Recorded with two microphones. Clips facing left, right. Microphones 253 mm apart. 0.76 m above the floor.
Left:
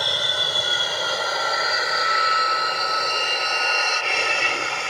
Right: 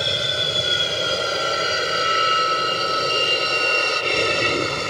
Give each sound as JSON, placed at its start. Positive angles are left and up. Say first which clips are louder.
{"t": 0.0, "sound": "an aircraft", "louder": "right 4 dB", "side_deg": -25}